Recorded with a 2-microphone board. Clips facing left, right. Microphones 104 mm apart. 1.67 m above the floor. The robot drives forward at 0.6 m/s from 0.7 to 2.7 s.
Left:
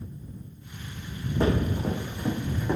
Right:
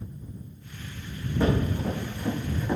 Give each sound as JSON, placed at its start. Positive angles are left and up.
{"t": 1.4, "sound": "running footsteps", "side_deg": 20, "distance_m": 5.0}